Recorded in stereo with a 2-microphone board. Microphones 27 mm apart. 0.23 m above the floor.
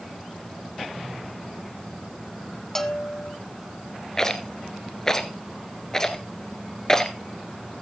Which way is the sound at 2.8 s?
10° left (ahead or behind).